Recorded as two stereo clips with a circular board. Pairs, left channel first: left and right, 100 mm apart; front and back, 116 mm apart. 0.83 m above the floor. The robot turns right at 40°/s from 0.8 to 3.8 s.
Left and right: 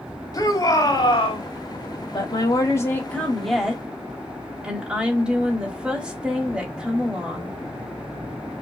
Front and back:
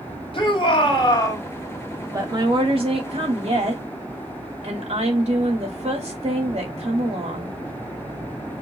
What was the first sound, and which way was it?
A shout, 40° left.